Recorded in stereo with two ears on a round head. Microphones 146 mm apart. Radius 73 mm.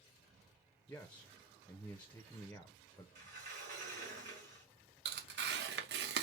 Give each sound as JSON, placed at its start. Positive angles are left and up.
{"t": 0.9, "sound": "a man speaking", "side_deg": 10, "distance_m": 0.6}
{"t": 3.1, "sound": "a sliding door", "side_deg": -50, "distance_m": 3.5}
{"t": 5.0, "sound": "tearing paper", "side_deg": -75, "distance_m": 0.8}